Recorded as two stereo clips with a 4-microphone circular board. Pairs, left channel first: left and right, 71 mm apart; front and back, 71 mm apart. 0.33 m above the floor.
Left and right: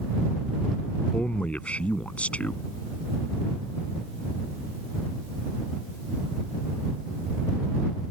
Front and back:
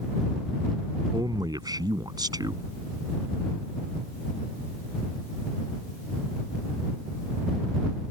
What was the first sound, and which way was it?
A man speaking, 160° left.